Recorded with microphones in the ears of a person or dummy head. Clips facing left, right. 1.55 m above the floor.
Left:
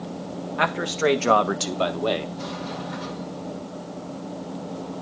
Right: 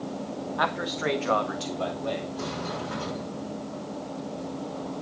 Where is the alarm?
I don't hear an alarm.